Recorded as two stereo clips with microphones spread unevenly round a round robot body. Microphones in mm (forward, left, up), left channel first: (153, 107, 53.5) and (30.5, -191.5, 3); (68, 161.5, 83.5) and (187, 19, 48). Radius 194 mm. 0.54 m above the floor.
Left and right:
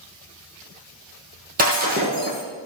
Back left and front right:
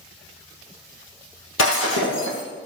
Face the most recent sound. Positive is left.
turn(degrees=175)